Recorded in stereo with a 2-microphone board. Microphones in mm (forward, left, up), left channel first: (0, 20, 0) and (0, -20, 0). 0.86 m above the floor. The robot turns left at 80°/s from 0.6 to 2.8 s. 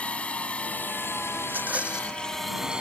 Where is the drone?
30° left (ahead or behind); by 2.8 s 25° right (ahead or behind).